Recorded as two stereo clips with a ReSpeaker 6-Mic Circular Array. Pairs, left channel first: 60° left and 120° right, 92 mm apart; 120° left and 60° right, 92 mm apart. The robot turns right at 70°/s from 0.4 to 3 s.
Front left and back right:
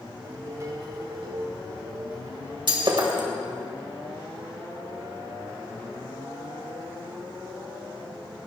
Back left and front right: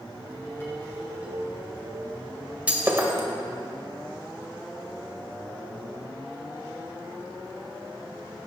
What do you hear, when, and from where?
0.2 s dishes clattering: 170° left, 6 m; by 2.6 s 40° right, 6 m
2.7 s breaking glass: 135° right, 2 m; by 3.3 s 110° right, 2 m